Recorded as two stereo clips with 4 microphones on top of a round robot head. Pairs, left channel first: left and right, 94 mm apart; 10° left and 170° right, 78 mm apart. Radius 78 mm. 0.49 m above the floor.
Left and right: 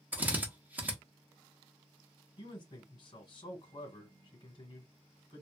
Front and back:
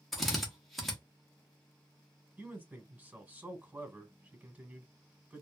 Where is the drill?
75° right, 1.2 m.